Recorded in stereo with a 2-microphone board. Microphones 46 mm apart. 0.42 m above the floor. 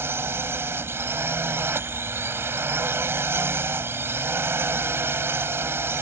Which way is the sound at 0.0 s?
60° right (ahead or behind).